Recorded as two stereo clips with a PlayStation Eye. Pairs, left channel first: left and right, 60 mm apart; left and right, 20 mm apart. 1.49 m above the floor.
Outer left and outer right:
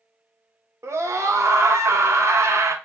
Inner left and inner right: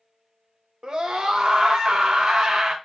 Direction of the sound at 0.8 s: 55° right (ahead or behind).